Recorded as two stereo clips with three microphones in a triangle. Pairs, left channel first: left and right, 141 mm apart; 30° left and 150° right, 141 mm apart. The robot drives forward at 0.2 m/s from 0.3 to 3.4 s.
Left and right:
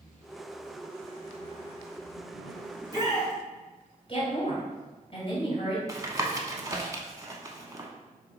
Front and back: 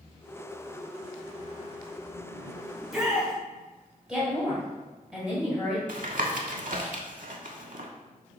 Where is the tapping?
155° right, 0.5 m.